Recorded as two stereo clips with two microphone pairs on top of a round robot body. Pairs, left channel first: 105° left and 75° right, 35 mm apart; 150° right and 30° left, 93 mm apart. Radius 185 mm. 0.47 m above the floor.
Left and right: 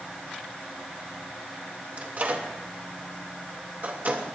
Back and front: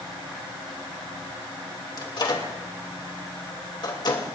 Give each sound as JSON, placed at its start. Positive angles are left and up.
{"t": 2.0, "sound": "a microwave", "azimuth_deg": -110, "distance_m": 2.5}